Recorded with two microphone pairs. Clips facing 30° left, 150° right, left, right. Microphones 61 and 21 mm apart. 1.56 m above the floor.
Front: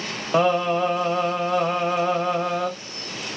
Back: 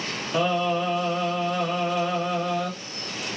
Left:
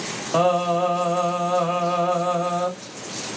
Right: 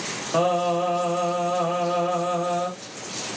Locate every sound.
0.3 s singing: 15° left, 0.8 m